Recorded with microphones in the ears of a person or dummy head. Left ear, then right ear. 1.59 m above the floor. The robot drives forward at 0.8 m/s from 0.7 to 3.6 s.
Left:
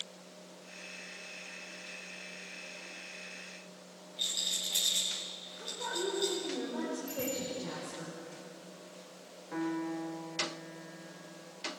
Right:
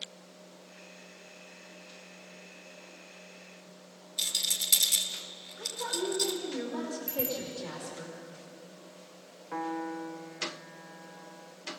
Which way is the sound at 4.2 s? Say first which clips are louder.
Right 3 dB; 65° right (ahead or behind).